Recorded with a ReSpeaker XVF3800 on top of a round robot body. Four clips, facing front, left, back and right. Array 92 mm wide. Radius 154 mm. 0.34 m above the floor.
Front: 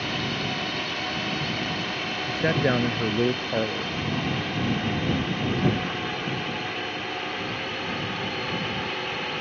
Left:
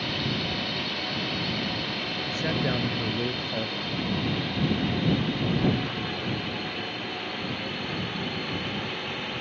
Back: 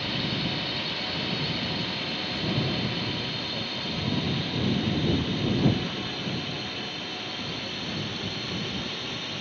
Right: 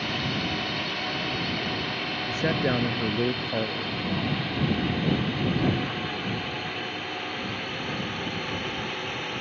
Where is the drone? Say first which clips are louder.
Right 1 dB, front 2 dB; 35° right; by 9.4 s 20° right.